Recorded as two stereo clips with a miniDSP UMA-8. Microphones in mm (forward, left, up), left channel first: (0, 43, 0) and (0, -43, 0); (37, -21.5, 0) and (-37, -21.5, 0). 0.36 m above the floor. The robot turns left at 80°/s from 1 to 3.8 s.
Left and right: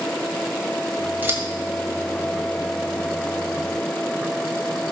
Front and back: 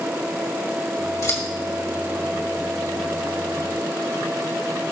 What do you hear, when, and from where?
1.2 s scissors: 30° right, 2.5 m; by 1.4 s 45° right, 2.5 m